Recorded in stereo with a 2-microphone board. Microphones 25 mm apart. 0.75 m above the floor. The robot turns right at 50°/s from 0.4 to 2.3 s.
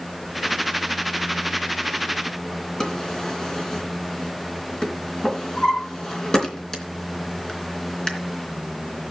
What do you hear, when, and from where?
2.8 s a drawer: 35° left (ahead or behind), 3 m